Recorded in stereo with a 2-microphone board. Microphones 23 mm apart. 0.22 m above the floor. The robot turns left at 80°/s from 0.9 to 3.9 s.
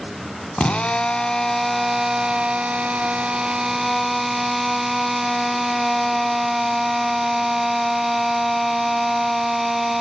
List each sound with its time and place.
0.6 s a drill: 65° left, 0.7 m; by 10.0 s 175° right, 0.7 m